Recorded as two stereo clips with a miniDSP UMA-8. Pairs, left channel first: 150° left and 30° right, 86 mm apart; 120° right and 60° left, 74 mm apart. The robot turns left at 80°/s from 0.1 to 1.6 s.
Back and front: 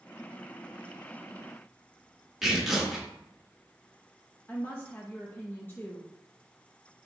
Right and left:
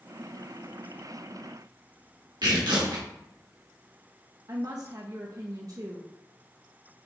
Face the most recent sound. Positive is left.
turn(degrees=90)